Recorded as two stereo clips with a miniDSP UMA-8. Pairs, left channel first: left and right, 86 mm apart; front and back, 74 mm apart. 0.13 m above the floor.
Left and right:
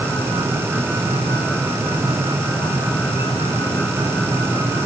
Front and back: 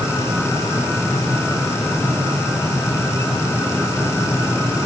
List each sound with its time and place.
Only background noise.